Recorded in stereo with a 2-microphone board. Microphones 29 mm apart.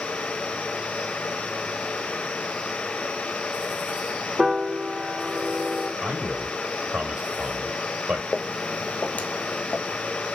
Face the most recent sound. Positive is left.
turn(degrees=65)  # may be behind; listen again after turning